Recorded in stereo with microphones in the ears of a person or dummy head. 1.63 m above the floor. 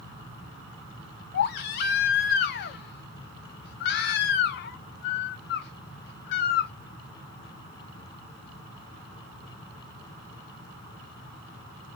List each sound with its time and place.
1.3 s a baby crying: 50° left (ahead or behind), 0.7 m